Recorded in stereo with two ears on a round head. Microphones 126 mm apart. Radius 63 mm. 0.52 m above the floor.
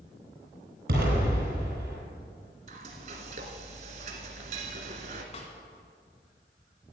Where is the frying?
60° right (ahead or behind), 1.6 m.